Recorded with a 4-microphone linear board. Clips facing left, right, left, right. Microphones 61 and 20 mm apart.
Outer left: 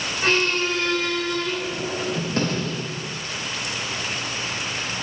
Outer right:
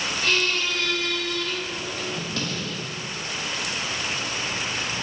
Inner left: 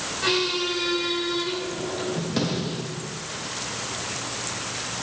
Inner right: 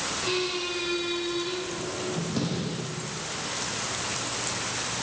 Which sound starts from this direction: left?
A squeak, at 0.2 s.